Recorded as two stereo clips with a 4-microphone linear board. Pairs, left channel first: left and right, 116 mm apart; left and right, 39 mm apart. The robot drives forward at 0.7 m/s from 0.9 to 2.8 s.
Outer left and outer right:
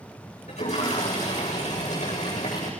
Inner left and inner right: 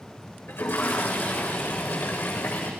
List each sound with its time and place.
0.5 s a toilet flushing: 75° left (ahead or behind), 9 m; by 2.7 s 80° left, 8.5 m